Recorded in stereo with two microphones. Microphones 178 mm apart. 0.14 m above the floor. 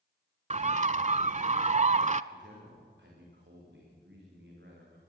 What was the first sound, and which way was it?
A bird, 40° right (ahead or behind).